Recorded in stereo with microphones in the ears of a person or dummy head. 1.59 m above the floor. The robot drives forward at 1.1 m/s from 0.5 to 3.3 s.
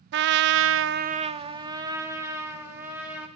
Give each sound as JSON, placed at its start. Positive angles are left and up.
{"t": 0.1, "sound": "a trumpet", "side_deg": -60, "distance_m": 0.5}